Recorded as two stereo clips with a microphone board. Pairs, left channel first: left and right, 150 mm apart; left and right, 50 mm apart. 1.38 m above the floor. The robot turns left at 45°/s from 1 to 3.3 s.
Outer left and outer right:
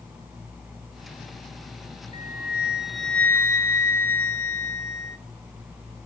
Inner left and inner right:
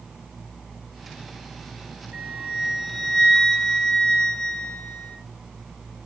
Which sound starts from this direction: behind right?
A flute, at 2.1 s.